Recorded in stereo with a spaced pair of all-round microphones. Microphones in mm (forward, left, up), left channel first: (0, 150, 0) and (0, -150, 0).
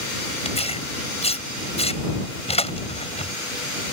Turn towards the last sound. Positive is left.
turn(degrees=20)  # may be behind; listen again after turning